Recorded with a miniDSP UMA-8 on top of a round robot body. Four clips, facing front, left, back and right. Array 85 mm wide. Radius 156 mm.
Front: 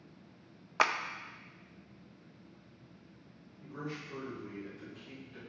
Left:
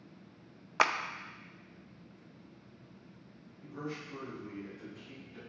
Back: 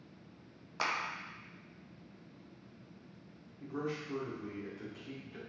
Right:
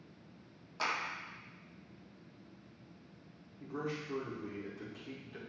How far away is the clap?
About 0.6 m.